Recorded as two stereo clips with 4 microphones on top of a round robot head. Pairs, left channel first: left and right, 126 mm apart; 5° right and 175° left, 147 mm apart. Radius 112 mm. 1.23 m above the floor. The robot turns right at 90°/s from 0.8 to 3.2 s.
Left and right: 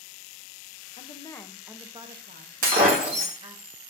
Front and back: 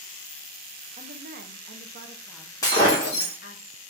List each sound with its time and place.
1.0 s a woman speaking: 125° left, 0.9 m; by 3.6 s 30° right, 0.9 m
2.6 s breaking glass: 80° right, 1.2 m; by 3.3 s 30° right, 1.2 m